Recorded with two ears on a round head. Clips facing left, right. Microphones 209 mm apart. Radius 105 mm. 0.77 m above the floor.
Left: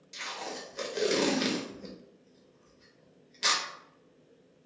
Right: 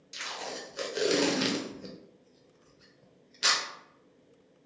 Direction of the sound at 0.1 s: 10° right (ahead or behind).